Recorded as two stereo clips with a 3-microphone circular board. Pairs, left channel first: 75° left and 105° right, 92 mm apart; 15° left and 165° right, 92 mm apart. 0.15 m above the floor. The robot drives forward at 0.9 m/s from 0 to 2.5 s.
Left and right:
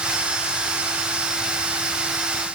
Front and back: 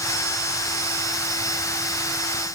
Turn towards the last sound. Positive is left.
No sound to turn to.